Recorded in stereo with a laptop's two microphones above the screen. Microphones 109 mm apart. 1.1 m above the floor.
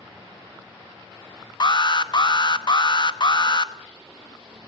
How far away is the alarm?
About 0.7 m.